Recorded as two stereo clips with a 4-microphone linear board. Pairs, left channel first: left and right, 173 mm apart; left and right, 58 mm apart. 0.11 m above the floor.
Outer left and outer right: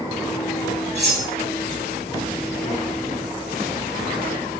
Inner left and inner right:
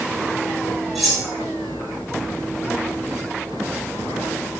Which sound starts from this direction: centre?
Cutlery clinking, at 0.9 s.